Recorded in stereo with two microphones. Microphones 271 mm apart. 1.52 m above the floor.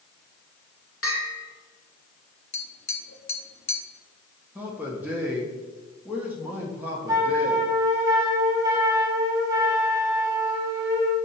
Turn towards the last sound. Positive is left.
turn(degrees=-10)  # may be behind; listen again after turning